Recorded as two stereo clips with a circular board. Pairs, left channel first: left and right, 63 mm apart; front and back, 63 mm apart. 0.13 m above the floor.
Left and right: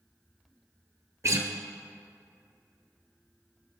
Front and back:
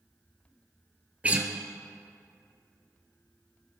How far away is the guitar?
About 1.4 m.